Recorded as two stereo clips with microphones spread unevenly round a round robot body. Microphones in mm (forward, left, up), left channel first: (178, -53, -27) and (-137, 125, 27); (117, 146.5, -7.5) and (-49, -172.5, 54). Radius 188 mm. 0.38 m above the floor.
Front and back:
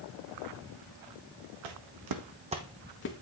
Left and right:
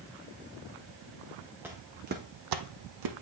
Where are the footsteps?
160° left, 1.5 m; by 3.2 s 85° right, 1.3 m.